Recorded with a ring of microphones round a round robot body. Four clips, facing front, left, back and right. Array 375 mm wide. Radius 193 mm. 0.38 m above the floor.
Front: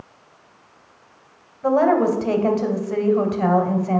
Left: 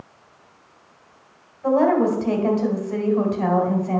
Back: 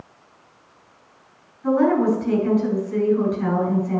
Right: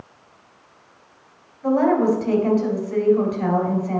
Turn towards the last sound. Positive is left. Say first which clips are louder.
# even, front 1 dB
turn(degrees=0)